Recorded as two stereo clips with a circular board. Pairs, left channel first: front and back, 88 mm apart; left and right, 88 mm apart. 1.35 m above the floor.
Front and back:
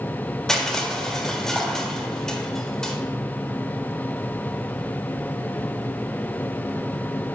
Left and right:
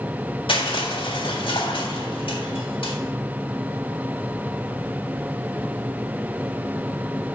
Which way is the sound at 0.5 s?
85° left.